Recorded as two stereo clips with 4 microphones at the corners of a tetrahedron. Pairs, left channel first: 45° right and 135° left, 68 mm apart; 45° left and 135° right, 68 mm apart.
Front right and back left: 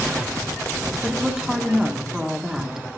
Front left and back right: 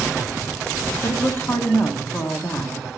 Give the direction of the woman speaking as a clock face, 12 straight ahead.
10 o'clock.